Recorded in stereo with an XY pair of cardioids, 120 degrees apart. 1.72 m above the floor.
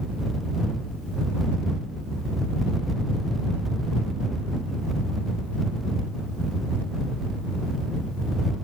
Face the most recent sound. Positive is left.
No sound to turn to.